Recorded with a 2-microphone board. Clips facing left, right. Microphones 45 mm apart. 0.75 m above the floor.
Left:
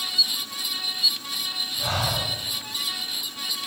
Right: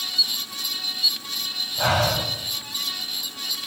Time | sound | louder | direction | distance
1.8 | breathing | right 6 dB | 75° right (ahead or behind) | 1.3 m